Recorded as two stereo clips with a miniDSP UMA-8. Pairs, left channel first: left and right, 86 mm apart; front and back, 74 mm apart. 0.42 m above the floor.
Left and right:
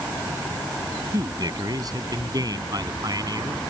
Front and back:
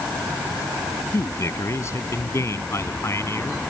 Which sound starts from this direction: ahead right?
A man speaking, at 1.1 s.